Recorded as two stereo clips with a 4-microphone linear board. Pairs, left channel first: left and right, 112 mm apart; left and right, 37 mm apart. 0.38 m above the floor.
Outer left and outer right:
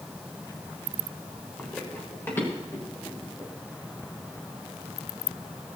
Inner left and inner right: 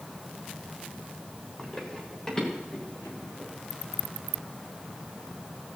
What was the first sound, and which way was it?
Running footsteps, 15° left (ahead or behind).